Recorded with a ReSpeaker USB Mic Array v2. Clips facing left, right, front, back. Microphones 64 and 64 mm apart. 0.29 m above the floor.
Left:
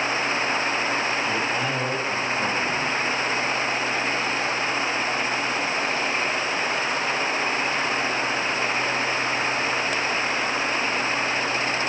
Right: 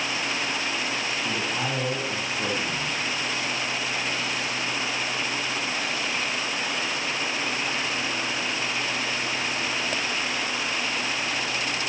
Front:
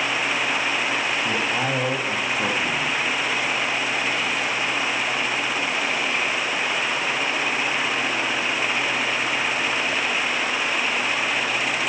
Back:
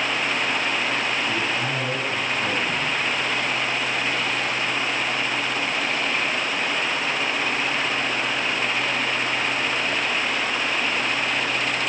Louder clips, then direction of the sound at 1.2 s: Left 3 dB, front 1 dB; 10° right.